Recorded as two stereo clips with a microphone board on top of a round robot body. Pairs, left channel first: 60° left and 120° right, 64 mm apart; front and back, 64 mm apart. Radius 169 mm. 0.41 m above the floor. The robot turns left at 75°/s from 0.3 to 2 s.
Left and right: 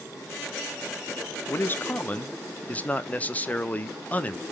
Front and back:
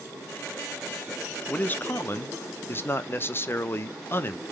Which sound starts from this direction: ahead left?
A man speaking, at 1.5 s.